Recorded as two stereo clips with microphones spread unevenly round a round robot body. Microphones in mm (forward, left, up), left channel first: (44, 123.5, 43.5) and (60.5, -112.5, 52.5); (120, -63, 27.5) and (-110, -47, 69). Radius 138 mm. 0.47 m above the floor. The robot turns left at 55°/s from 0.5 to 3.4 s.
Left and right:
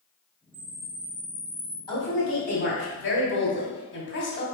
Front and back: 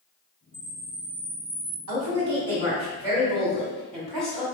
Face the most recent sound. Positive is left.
turn(degrees=75)